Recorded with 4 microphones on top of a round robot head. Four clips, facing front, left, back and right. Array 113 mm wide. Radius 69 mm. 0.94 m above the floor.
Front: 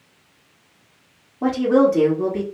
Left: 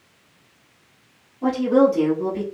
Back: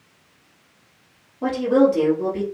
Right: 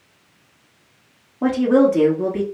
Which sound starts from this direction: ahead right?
A woman speaking, at 1.4 s.